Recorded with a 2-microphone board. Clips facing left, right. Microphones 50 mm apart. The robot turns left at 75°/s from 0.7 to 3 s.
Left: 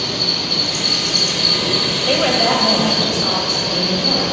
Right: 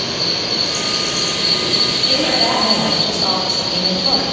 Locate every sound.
0.0 s an insect: 115° right, 1.4 m; by 4.3 s 70° left, 1.4 m
2.1 s a woman speaking: 60° left, 2 m; by 4.2 s 10° right, 2 m